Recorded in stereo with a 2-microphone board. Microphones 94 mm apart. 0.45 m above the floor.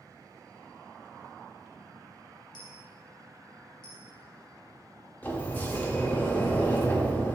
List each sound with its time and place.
2.5 s a dropped coin: 55° left (ahead or behind), 1.8 m
5.2 s a sliding door: 20° left (ahead or behind), 0.8 m